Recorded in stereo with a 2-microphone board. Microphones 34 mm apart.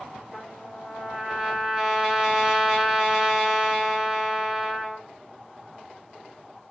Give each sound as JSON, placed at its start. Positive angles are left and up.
{"t": 0.3, "sound": "a trumpet", "side_deg": -15, "distance_m": 1.6}